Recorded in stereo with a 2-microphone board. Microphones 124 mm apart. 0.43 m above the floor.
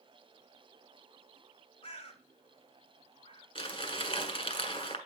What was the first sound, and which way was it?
A bird, 50° left (ahead or behind).